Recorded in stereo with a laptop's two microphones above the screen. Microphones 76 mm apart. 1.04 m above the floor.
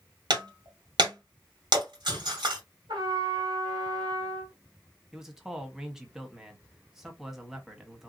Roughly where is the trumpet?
Right.